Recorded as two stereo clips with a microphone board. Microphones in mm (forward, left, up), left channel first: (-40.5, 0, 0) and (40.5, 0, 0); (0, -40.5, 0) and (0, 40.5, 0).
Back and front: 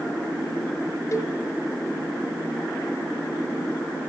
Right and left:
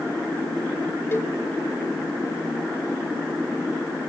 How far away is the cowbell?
About 1.5 m.